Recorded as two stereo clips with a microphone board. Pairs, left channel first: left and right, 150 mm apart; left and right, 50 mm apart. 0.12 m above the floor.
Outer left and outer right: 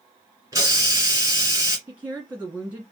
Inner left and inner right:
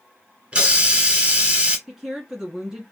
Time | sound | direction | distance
0.5 | a hiss | 20° right (ahead or behind) | 1.5 m
1.9 | a woman speaking | 10° right (ahead or behind) | 1.5 m